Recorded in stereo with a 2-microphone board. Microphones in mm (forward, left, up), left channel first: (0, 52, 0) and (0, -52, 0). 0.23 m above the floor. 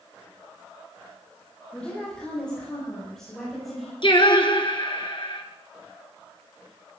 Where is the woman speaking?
10° left (ahead or behind), 7.5 m; by 3.9 s centre (ahead or behind), 6.5 m.